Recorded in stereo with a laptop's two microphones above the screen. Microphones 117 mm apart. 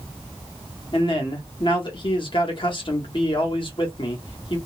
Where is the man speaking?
50° left (ahead or behind), 1.2 m.